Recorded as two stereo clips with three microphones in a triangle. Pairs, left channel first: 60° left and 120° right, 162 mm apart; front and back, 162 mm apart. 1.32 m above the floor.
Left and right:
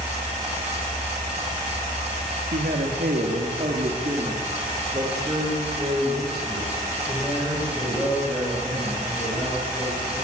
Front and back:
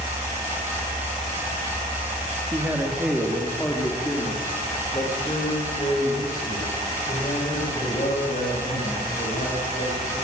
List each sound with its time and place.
2.5 s a man speaking: 105° right, 2.5 m; by 10.2 s 40° right, 11 m